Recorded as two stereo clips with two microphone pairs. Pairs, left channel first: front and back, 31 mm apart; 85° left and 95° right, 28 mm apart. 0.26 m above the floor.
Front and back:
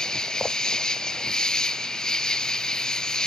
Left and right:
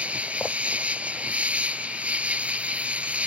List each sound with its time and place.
0.0 s an insect: 65° right